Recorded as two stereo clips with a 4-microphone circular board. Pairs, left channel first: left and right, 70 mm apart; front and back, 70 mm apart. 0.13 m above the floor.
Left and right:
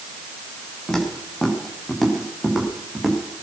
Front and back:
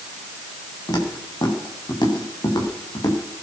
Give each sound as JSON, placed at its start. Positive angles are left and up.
{"t": 0.9, "sound": "footsteps", "azimuth_deg": 10, "distance_m": 6.0}